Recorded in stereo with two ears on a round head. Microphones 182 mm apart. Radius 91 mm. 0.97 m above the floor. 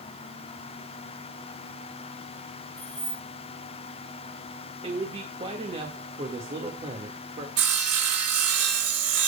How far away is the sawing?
About 3.5 m.